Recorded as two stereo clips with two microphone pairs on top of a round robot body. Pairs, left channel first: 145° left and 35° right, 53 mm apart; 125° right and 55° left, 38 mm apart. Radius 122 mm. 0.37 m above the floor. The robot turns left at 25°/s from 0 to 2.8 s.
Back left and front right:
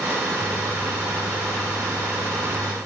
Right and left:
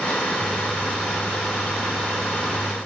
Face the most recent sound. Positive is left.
No sound to turn to.